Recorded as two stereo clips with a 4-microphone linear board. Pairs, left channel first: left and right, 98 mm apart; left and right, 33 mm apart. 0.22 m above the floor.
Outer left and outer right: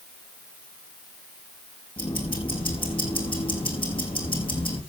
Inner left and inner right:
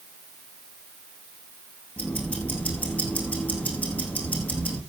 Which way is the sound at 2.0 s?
60° left (ahead or behind).